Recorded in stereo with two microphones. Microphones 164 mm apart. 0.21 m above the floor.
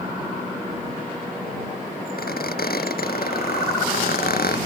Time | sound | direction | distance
2.2 | a squeak | 85° left | ?